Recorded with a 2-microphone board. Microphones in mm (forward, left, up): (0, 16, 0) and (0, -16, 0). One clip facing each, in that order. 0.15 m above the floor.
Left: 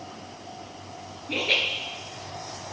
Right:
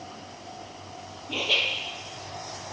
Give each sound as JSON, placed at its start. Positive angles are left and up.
{"t": 1.3, "sound": "laughter", "side_deg": 50, "distance_m": 2.5}